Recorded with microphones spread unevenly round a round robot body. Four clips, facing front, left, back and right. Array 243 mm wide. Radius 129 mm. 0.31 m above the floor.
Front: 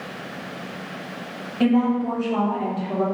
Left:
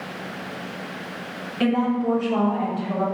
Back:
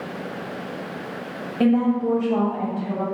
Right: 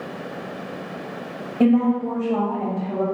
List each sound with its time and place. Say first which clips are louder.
1.6 s a woman speaking: right 4 dB, even; 125° right, 1.7 m; by 3.0 s 165° right, 1.9 m